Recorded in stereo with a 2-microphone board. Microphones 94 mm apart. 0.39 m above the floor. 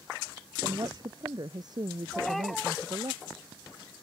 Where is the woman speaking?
45° right (ahead or behind).